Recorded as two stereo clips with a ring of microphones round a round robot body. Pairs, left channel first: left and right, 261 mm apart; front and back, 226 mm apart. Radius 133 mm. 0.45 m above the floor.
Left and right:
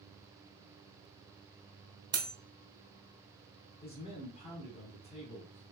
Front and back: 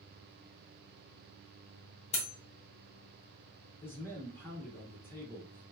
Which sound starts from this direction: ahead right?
Cutlery clinking, at 2.1 s.